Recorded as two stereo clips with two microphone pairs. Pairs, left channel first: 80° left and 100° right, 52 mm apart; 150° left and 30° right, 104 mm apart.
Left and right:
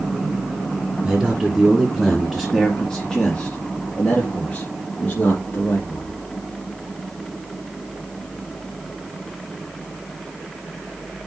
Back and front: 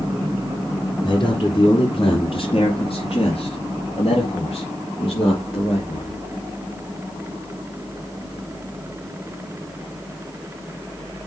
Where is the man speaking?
175° right, 2.5 m; by 6.2 s 125° left, 4 m.